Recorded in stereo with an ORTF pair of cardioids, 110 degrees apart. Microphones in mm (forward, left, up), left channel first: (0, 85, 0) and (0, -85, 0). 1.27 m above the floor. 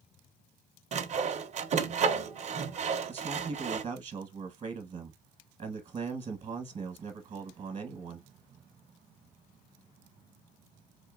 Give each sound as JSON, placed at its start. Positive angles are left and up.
{"t": 0.9, "sound": "sawing", "azimuth_deg": -45, "distance_m": 0.7}
{"t": 3.1, "sound": "a man speaking", "azimuth_deg": -40, "distance_m": 1.1}